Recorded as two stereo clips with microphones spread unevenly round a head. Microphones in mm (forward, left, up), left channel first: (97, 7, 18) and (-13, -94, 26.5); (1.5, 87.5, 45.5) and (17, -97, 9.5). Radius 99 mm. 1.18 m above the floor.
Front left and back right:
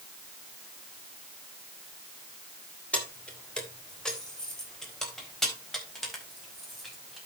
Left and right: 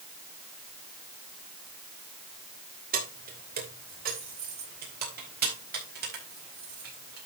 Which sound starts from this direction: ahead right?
Keys jangling, at 2.9 s.